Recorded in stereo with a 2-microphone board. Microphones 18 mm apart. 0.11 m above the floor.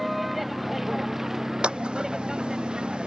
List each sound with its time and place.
0.0 s a vehicle: 5° right (ahead or behind); by 3.1 s 45° right (ahead or behind)
1.6 s scissors: 75° right (ahead or behind)